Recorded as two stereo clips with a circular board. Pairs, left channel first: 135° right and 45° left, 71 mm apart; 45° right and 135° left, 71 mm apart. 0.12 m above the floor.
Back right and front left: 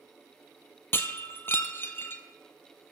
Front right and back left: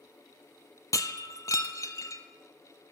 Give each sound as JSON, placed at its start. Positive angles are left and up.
{"t": 0.9, "sound": "breaking glass", "azimuth_deg": -80, "distance_m": 0.7}